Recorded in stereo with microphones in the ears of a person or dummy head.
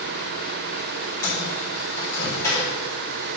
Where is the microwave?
15° left (ahead or behind), 4 m.